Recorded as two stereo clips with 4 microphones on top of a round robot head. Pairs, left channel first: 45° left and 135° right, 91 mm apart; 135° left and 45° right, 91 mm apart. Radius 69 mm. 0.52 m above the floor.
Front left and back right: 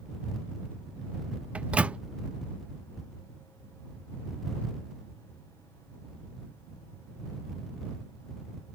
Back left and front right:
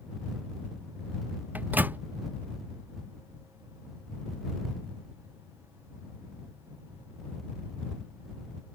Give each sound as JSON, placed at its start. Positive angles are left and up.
{"t": 1.6, "sound": "a microwave", "azimuth_deg": -80}